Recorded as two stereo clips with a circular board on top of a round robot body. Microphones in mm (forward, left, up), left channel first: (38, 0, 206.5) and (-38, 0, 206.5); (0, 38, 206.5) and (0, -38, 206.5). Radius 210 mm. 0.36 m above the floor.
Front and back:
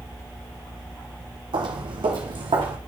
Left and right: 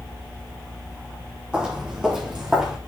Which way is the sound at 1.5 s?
165° right.